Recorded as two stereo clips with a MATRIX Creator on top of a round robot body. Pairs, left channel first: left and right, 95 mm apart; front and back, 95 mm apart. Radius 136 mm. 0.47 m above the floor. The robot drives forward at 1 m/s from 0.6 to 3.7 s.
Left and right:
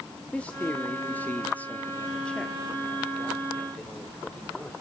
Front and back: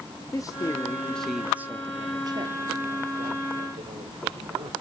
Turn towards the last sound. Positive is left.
turn(degrees=175)